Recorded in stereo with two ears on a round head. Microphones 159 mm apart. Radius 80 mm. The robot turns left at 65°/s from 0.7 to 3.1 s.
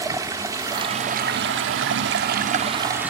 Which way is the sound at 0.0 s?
20° right.